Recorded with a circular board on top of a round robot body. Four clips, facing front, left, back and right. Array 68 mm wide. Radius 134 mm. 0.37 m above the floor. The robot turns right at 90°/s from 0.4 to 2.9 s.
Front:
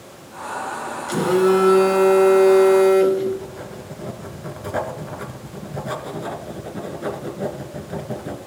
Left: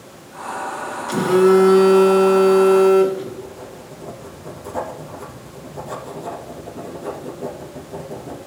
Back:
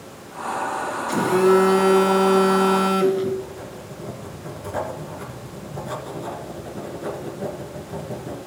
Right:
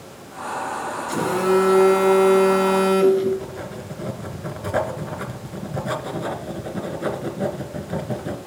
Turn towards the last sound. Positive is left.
turn(degrees=-75)